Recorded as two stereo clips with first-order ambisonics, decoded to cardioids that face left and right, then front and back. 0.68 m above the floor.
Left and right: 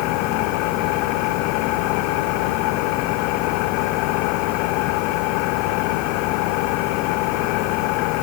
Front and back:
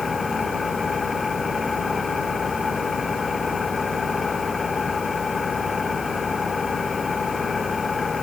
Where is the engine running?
75° left.